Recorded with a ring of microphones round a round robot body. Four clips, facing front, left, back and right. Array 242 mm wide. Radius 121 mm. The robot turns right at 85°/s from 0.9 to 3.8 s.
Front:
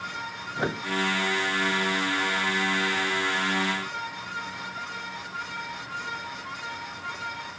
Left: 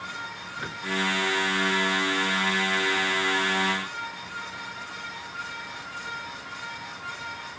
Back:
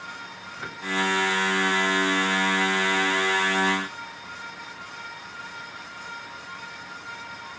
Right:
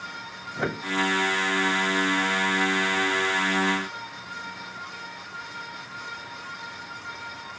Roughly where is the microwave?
Ahead right.